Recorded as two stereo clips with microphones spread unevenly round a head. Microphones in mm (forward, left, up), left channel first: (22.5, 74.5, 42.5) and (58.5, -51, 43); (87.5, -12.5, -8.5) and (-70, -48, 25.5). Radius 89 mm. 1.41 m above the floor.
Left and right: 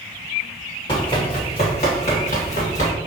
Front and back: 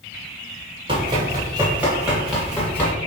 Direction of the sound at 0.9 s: 160° left.